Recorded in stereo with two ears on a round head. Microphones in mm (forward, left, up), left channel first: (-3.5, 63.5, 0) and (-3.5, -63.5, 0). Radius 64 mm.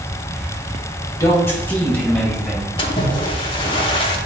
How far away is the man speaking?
About 1.8 m.